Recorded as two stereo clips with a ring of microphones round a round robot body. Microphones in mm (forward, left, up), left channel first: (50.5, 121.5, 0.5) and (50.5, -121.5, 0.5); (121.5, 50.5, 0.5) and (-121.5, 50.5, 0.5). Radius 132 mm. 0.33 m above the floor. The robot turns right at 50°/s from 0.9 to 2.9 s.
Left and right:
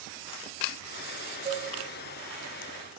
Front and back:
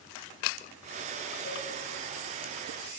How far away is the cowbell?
About 3 m.